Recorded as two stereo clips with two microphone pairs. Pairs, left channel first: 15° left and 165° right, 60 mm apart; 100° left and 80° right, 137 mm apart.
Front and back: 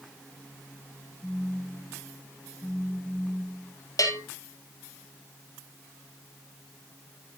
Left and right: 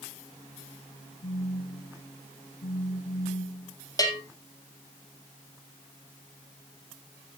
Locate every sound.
1.2 s a phone buzzing: 90° left, 2 m
4.0 s a bell: 35° left, 2.5 m